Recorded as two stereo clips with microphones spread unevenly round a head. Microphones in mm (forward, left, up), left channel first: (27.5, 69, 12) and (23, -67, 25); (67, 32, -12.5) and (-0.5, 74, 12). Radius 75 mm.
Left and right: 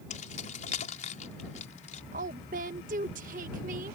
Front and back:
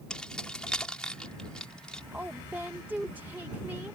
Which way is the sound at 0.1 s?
50° left.